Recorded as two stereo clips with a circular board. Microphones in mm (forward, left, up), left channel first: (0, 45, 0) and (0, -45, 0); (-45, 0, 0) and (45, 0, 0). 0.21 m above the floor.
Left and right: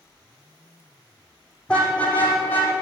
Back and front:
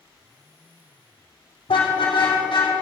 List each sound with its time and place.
1.7 s a car horn: 170° left, 5 m; by 2.7 s 155° left, 5 m